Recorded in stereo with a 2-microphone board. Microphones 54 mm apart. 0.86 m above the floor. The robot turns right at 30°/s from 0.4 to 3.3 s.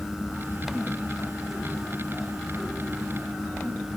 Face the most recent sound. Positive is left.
No sound to turn to.